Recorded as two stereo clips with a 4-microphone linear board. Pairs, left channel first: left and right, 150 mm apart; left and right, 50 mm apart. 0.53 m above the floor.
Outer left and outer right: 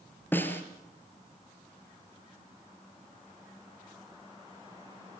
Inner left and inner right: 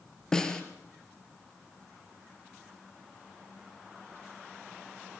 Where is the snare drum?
15° left (ahead or behind), 3 m.